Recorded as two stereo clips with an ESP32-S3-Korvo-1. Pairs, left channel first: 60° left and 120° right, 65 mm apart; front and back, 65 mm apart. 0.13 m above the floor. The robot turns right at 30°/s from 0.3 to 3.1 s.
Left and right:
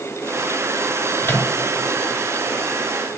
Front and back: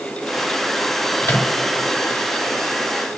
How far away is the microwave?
About 1.3 m.